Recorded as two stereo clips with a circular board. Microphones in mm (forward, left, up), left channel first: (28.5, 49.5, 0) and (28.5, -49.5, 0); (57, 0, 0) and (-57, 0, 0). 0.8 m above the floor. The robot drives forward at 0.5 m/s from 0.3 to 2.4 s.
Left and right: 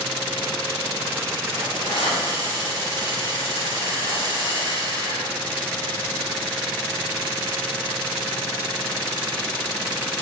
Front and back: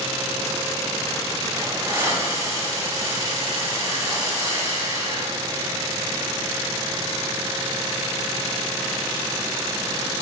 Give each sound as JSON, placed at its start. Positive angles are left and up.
{"t": 1.5, "sound": "a hiss", "azimuth_deg": 115, "distance_m": 4.5}